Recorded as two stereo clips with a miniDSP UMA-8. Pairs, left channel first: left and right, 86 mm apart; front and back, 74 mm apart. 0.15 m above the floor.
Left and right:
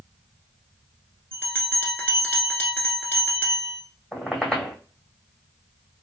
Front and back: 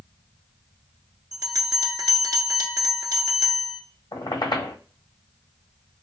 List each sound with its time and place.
1.3 s a bell: 155° left, 1.1 m
4.1 s a squeak: 10° left, 1.3 m